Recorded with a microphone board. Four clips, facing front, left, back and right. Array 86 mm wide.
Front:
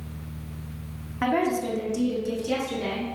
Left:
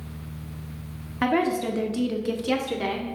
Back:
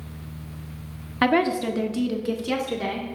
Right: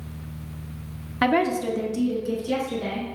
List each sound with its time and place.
1.2 s a woman speaking: 150° right, 0.8 m; by 3.1 s 115° left, 1.6 m